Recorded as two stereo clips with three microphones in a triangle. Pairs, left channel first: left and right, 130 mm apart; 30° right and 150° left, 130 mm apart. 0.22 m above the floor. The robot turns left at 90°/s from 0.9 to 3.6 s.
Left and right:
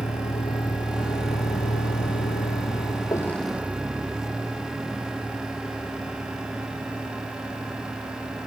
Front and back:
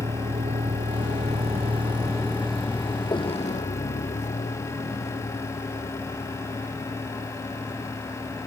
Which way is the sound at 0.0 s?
125° left.